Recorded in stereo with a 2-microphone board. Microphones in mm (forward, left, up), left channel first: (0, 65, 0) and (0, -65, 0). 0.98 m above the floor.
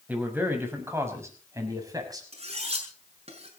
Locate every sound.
0.1 s a man speaking: 15° right (ahead or behind), 5 m; by 2.2 s 30° right (ahead or behind), 6 m
2.3 s cutlery clinking: 50° right (ahead or behind), 6.5 m